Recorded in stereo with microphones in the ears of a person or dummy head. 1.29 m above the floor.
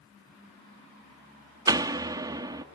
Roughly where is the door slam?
Centre.